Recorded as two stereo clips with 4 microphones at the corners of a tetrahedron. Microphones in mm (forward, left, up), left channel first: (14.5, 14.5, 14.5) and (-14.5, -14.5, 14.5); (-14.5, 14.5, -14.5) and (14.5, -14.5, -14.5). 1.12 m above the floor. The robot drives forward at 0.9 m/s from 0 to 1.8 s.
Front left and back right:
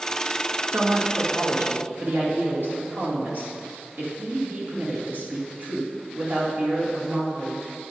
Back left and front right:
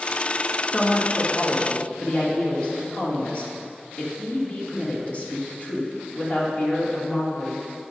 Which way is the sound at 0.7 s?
165° right.